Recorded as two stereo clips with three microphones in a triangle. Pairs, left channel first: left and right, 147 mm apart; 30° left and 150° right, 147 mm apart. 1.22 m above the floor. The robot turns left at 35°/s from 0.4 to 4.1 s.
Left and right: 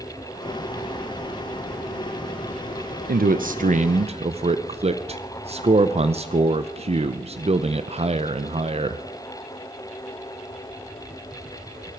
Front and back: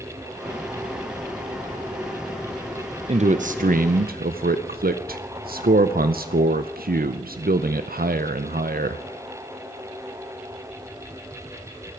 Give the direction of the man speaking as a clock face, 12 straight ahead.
3 o'clock.